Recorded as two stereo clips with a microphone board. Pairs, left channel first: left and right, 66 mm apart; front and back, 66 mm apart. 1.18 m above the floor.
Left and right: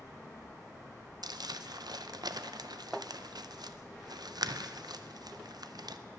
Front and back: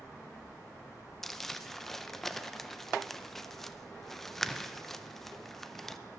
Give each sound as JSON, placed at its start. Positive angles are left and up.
{"t": 1.2, "sound": "crumpling", "azimuth_deg": -85, "distance_m": 0.5}